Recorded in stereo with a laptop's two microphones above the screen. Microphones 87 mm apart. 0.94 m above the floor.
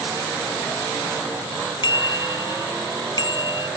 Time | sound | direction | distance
1.8 | a bicycle bell | 55° left (ahead or behind) | ?